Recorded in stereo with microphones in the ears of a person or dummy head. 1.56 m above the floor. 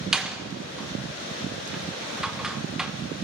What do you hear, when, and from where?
0.1 s a door slam: 5° right (ahead or behind), 0.7 m